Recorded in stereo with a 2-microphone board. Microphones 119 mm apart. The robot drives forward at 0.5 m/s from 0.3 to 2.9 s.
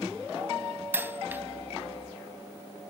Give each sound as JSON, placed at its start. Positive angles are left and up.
{"t": 0.9, "sound": "a dropped coin", "side_deg": -20, "distance_m": 0.6}